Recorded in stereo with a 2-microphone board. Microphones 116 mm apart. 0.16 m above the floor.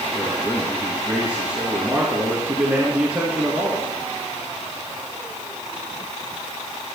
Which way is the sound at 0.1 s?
15° right (ahead or behind).